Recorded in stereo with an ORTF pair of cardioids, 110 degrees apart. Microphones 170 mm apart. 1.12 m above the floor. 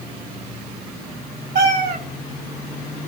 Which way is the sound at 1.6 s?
65° right.